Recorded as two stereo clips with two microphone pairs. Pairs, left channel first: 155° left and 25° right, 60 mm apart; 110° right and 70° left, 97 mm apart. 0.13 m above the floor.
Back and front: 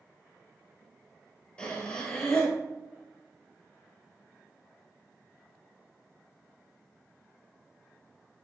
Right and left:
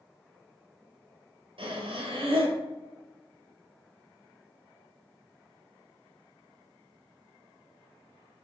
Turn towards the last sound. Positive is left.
turn(degrees=85)